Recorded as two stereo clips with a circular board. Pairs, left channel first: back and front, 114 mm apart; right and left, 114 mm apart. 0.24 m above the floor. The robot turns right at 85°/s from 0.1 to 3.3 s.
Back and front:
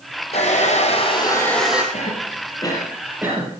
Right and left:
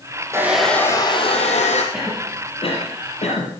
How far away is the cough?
About 5.5 m.